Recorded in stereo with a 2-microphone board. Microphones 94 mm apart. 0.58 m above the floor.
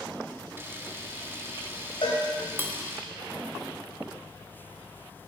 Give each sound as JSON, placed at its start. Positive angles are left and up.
{"t": 0.6, "sound": "a camera shutter", "side_deg": -25, "distance_m": 1.3}
{"t": 2.0, "sound": "a cowbell", "side_deg": 70, "distance_m": 3.0}